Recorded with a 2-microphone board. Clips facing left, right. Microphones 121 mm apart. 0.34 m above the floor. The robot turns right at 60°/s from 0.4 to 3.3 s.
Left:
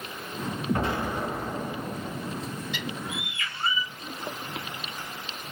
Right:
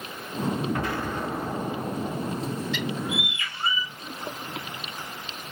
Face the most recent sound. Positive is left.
turn(degrees=-160)